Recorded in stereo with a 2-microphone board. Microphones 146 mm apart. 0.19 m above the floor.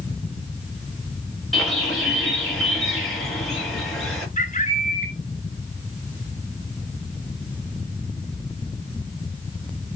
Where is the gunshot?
No gunshot in this recording.